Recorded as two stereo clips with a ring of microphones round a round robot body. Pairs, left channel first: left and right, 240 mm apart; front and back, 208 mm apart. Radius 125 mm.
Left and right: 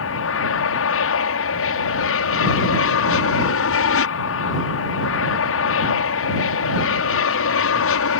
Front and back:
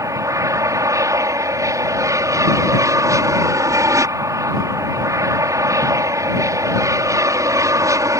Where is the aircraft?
105° left.